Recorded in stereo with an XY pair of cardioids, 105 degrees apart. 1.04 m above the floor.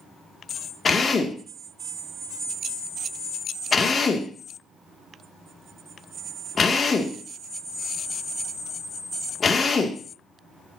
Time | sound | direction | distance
0.8 | a drill | 35° left | 1.9 m